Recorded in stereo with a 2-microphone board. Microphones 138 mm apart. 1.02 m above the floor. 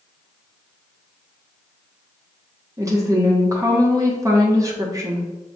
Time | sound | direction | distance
2.8 | a woman speaking | 25° right (ahead or behind) | 0.9 m